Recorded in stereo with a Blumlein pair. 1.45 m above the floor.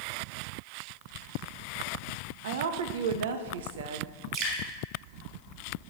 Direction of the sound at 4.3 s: 40° right.